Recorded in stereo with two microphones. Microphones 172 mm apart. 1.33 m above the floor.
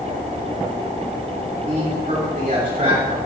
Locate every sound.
1.7 s a man speaking: 55° right (ahead or behind), 3.5 m